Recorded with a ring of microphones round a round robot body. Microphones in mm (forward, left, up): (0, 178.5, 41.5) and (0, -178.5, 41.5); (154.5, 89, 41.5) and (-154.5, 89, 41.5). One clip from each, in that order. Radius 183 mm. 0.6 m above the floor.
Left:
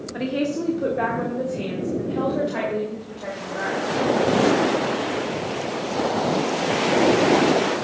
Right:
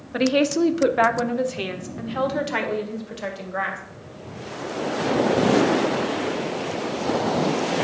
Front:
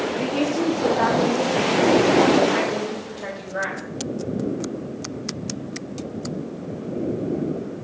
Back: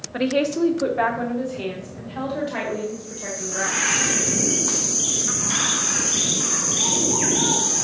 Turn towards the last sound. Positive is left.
turn(degrees=-75)